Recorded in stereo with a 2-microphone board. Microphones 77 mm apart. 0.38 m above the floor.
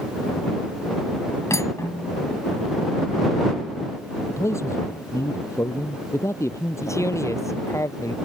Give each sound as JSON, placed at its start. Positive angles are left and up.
{"t": 1.5, "sound": "cutlery clinking", "side_deg": 45}
{"t": 4.3, "sound": "a man speaking", "side_deg": 40}
{"t": 6.8, "sound": "a man speaking", "side_deg": 40}